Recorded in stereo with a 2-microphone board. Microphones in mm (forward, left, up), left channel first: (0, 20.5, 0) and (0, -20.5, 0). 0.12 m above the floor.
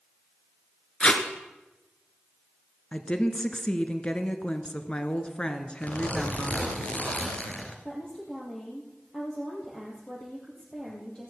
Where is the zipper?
35° left (ahead or behind), 2 m.